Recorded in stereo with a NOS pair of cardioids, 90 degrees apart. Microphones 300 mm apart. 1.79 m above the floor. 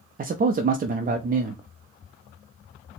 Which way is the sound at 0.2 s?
30° right.